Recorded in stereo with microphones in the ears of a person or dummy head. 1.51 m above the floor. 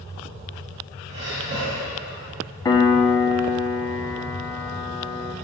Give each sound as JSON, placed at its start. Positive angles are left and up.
{"t": 1.1, "sound": "breathing", "side_deg": -30, "distance_m": 2.0}
{"t": 2.6, "sound": "a piano", "side_deg": 20, "distance_m": 0.8}